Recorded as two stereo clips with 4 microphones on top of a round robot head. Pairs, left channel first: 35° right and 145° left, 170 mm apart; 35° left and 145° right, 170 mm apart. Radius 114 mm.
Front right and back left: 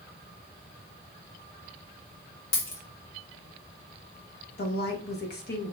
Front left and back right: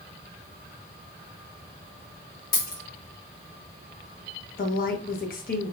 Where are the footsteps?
No footsteps in this recording.